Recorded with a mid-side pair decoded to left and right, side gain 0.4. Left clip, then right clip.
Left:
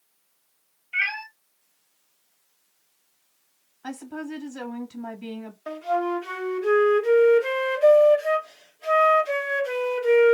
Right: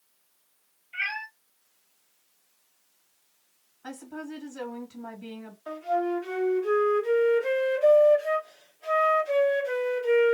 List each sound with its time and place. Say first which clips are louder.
0.9 s a cat meowing: left 5 dB; 70° left, 1.5 m
3.8 s a woman speaking: left 4 dB; 55° left, 1.6 m
5.7 s a flute: left 2 dB; 70° left, 1.0 m